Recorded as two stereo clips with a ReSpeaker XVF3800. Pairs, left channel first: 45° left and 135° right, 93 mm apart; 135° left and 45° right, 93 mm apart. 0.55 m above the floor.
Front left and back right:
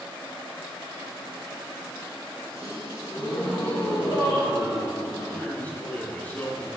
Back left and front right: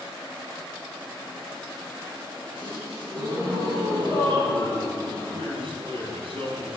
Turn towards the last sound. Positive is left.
turn(degrees=-25)